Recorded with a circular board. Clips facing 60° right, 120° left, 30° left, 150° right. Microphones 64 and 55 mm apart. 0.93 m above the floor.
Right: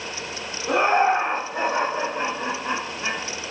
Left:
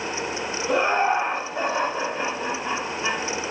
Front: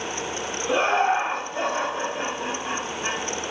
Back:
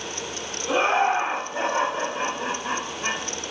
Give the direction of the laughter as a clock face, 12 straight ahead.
2 o'clock.